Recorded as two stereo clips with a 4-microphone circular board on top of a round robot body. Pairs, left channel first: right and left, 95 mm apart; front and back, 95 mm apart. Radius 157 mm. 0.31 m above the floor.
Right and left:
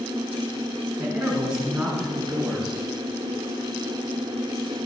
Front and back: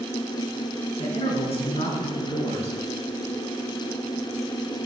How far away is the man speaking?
About 4.5 m.